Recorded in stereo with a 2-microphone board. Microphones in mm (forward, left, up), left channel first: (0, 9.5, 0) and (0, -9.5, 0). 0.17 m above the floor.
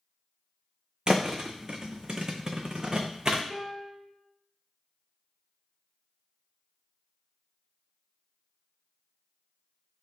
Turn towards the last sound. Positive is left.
turn(degrees=40)  # may be behind; listen again after turning